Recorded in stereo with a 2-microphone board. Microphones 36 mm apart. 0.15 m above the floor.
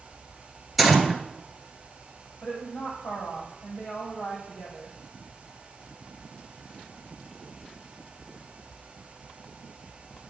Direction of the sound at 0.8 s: Centre (ahead or behind).